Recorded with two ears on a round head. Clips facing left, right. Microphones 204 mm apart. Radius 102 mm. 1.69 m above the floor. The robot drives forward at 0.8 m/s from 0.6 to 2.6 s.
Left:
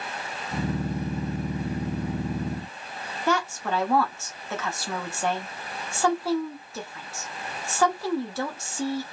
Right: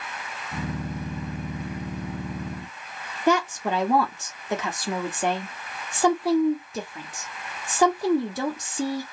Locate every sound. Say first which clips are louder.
3.3 s a woman speaking: right 4 dB; 15° right (ahead or behind), 0.8 m